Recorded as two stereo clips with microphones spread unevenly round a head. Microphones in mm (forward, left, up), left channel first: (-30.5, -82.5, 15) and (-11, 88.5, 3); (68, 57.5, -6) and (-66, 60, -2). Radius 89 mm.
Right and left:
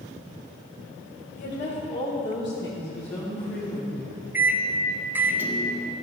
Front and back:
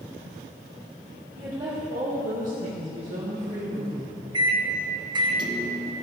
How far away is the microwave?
About 0.7 m.